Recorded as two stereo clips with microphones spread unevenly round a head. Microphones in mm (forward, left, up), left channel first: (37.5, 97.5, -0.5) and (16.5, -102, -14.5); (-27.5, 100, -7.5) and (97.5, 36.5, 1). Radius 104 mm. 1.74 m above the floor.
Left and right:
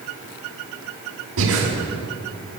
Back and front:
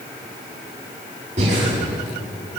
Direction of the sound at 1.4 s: 80° right.